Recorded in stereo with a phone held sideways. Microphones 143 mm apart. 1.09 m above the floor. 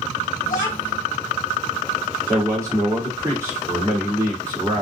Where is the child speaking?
70° left (ahead or behind), 1.2 m.